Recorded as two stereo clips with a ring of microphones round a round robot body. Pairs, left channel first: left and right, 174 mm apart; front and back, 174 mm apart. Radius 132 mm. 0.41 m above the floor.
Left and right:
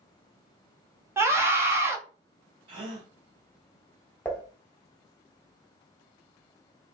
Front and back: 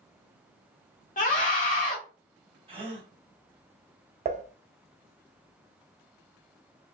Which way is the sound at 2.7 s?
140° right.